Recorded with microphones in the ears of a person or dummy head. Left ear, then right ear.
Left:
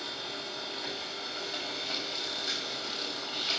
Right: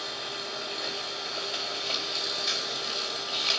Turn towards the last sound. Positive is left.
turn(degrees=-35)  # may be behind; listen again after turning